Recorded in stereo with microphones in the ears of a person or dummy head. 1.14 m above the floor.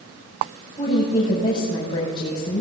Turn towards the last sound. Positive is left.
turn(degrees=30)  # may be behind; listen again after turning